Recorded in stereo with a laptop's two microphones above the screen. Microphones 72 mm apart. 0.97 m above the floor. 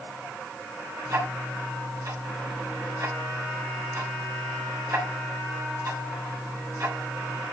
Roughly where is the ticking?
Right.